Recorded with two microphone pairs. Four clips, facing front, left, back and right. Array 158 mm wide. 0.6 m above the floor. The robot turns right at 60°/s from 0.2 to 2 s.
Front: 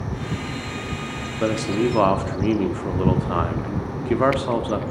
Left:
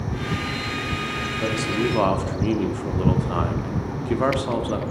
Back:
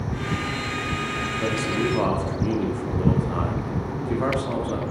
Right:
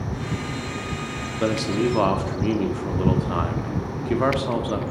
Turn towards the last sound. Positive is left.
turn(degrees=0)